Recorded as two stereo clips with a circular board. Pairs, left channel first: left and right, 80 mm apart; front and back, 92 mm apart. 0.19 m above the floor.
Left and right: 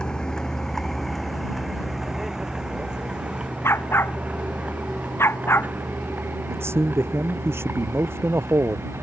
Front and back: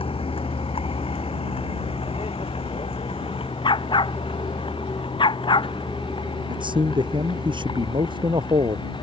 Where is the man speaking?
150° right.